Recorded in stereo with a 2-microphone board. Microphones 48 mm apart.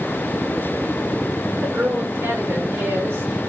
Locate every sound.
1.6 s a woman speaking: 60° right (ahead or behind), 2.5 m